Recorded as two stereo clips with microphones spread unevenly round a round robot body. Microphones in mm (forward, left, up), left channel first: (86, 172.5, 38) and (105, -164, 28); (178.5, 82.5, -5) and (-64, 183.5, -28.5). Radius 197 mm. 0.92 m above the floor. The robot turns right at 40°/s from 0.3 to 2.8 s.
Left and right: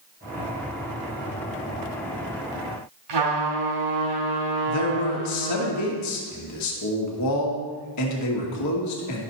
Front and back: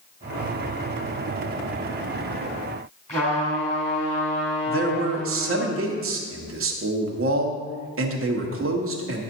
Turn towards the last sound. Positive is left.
turn(degrees=135)